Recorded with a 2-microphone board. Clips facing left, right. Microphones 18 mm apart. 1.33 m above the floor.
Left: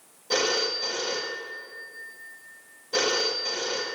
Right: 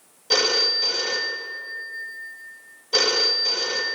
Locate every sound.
0.3 s a phone ringing: 40° right (ahead or behind), 0.9 m